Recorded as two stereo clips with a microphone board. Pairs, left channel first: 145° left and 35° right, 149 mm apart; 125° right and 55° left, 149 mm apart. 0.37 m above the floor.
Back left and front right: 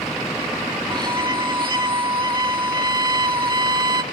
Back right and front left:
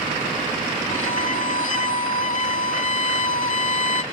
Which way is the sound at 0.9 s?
95° right.